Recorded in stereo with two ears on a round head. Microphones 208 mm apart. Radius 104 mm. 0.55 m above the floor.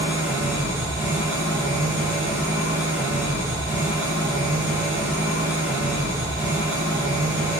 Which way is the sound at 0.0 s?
10° right (ahead or behind).